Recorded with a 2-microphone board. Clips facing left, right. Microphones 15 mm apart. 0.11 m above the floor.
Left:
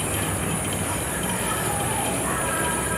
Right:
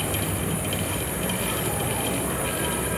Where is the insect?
30° left (ahead or behind), 1.4 m.